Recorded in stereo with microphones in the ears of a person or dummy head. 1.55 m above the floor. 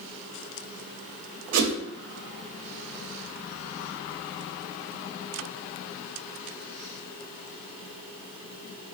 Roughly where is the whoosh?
Right.